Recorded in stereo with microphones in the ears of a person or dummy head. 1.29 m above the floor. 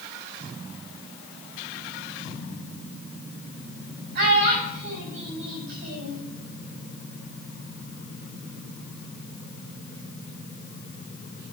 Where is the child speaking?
50° right (ahead or behind), 4.5 m.